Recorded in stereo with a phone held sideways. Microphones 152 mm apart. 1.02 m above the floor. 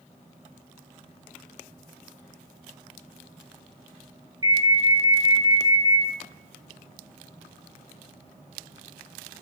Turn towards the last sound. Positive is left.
turn(degrees=-30)  # may be behind; listen again after turning